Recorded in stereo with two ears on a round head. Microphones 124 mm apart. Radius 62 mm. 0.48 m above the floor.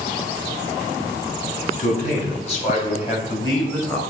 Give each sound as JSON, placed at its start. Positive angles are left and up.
{"t": 1.8, "sound": "a man speaking", "side_deg": 65, "distance_m": 3.5}